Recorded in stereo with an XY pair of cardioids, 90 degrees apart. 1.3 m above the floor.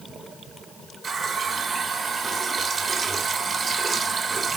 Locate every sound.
1.0 s a running tap: 40° right, 1.3 m